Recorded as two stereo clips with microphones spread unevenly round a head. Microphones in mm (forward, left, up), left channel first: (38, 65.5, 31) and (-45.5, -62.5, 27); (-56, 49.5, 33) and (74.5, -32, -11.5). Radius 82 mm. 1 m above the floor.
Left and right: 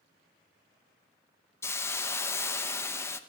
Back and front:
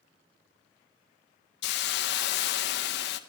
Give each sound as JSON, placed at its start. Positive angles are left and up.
{"t": 1.6, "sound": "a hiss", "azimuth_deg": 130, "distance_m": 0.7}